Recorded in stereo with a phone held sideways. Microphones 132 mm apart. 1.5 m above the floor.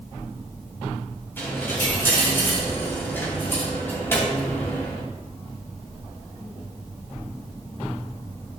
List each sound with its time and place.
1.4 s a dropped coin: 20° left (ahead or behind), 2.5 m